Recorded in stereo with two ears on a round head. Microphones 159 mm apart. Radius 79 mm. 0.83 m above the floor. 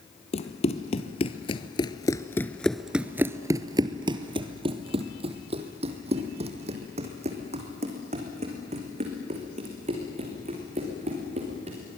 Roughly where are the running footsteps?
Left.